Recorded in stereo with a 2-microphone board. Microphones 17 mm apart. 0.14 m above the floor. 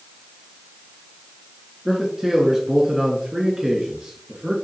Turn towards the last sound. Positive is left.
turn(degrees=-50)  # may be behind; listen again after turning